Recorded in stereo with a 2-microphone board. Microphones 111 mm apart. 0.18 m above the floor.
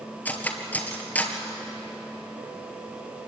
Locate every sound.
0.2 s cutlery clinking: 15° left (ahead or behind), 2 m